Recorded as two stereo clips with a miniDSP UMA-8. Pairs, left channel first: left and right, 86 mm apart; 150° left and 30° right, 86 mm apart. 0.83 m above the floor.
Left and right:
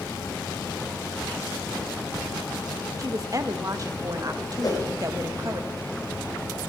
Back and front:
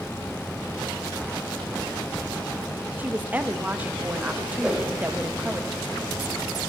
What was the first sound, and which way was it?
A woman speaking, 90° right.